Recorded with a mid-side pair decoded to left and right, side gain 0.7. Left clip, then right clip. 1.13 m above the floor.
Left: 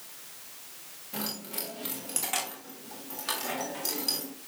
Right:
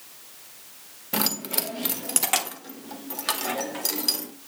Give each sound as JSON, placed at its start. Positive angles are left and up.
{"t": 1.1, "sound": "keys jangling", "azimuth_deg": -55, "distance_m": 1.2}